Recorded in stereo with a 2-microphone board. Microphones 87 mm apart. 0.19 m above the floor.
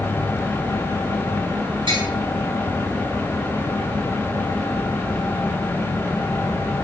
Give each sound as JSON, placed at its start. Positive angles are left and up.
{"t": 1.9, "sound": "tapping", "side_deg": -85, "distance_m": 6.5}